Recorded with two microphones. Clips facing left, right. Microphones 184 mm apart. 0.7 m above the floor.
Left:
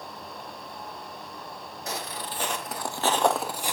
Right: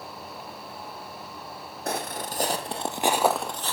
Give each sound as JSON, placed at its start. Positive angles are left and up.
{"t": 1.9, "sound": "footsteps", "side_deg": -55, "distance_m": 1.6}